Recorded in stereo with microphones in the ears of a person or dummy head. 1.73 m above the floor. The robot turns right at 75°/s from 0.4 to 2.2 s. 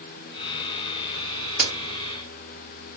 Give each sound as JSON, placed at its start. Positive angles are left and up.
{"t": 1.6, "sound": "a crack", "side_deg": -10, "distance_m": 1.3}